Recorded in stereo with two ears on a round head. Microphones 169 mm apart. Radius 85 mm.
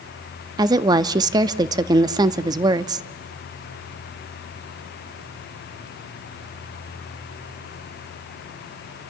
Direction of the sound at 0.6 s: 20° right (ahead or behind).